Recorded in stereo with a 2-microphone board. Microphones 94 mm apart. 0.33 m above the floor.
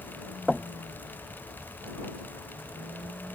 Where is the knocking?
Centre (ahead or behind).